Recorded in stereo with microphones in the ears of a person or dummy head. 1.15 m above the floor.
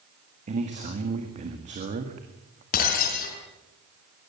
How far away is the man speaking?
About 2.0 m.